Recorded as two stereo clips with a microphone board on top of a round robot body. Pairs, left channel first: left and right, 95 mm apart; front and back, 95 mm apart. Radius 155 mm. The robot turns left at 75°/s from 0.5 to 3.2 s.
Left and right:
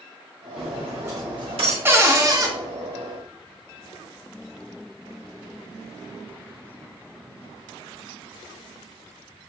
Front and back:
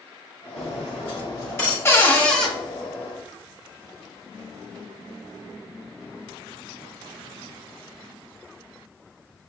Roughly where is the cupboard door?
Ahead right.